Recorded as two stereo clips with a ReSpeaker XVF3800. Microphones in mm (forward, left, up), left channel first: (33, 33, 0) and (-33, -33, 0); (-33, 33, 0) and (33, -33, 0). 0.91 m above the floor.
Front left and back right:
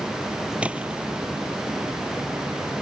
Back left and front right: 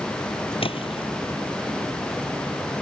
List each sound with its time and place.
0.6 s a splash: 150° left